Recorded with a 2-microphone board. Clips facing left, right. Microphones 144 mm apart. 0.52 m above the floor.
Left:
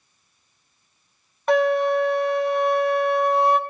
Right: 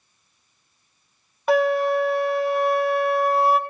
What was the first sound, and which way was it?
A flute, 5° right (ahead or behind).